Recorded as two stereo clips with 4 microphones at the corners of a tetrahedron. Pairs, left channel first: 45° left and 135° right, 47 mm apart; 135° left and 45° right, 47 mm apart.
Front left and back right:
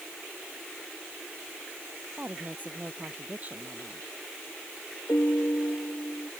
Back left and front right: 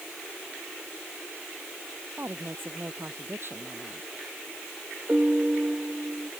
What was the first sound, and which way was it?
A woman speaking, 80° right.